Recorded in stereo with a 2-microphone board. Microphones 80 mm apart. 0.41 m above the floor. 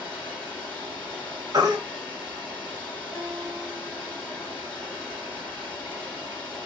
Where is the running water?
25° left (ahead or behind), 2 m.